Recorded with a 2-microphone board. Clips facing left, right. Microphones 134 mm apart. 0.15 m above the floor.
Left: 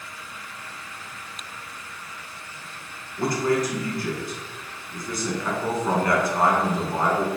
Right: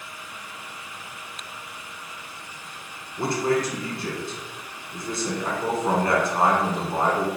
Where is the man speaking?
25° right (ahead or behind), 1.3 m.